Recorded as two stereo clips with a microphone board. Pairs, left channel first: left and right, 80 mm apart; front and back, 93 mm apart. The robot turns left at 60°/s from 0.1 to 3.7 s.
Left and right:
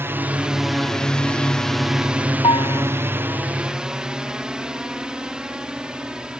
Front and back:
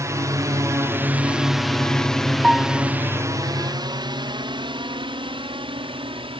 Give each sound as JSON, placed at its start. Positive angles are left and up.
{"t": 0.0, "sound": "a drone", "azimuth_deg": -140}
{"t": 2.4, "sound": "a piano", "azimuth_deg": 95}